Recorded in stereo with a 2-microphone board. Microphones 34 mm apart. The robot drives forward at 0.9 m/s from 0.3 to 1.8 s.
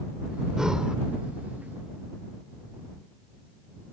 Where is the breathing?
20° right (ahead or behind); by 1.0 s 25° right (ahead or behind).